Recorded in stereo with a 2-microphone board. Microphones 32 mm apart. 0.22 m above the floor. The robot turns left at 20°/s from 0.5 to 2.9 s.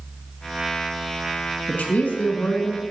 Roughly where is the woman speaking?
Left.